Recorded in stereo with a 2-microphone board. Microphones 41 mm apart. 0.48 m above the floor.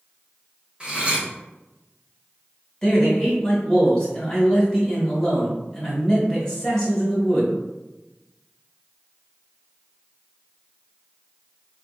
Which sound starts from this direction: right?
Cutlery clinking, at 0.8 s.